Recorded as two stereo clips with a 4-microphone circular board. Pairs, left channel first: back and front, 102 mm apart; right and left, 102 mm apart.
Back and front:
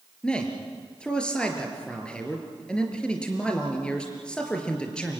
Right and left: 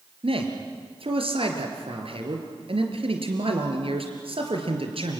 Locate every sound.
0.2 s a man speaking: 100° left, 4 m